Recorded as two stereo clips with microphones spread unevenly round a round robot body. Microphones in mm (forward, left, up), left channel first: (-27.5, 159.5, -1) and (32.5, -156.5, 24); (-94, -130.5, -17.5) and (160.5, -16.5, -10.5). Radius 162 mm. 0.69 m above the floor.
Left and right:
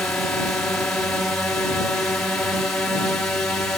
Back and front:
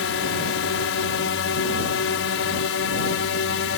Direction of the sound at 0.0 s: 175° right.